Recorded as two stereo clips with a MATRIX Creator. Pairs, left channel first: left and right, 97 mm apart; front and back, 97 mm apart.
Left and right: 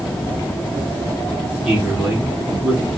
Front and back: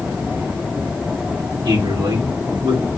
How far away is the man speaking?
About 2.5 m.